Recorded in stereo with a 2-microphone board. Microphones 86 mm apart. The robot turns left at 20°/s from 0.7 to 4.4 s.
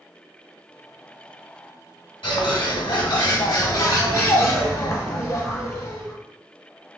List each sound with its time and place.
2.2 s a bird: 75° left, 0.9 m; by 6.2 s 35° left, 0.9 m